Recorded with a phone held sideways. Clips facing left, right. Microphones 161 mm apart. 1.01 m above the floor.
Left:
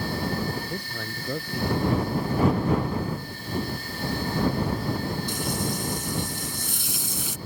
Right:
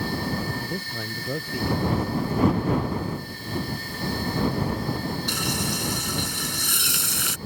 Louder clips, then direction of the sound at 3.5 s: Even; 5° left (ahead or behind).